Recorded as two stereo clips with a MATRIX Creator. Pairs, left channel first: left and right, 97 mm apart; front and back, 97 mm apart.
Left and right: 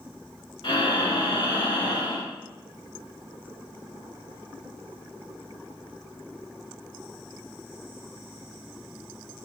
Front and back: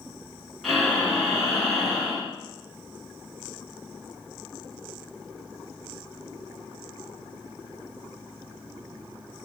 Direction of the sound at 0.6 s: 90° left.